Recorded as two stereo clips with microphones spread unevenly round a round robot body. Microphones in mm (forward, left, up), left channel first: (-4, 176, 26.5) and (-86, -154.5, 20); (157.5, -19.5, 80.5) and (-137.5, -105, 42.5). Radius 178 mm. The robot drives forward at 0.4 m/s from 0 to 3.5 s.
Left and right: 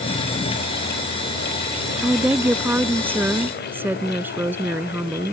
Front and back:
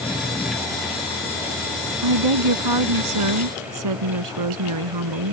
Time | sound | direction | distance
2.0 | a woman speaking | 170° left | ?